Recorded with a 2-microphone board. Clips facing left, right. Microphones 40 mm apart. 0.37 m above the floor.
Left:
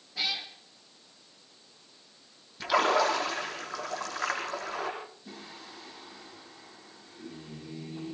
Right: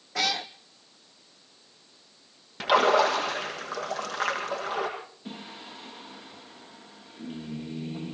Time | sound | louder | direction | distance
0.1 | a cat meowing | right 5 dB | 75° right (ahead or behind) | 1.5 m
2.6 | a splash | right 4 dB | 80° right | 9.5 m
5.2 | singing | right 4 dB | 75° right (ahead or behind) | 9.5 m